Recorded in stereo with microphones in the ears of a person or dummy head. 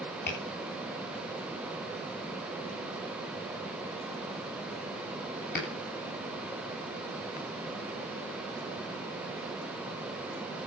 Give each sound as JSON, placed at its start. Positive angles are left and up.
{"t": 0.3, "sound": "tapping", "side_deg": 55, "distance_m": 8.5}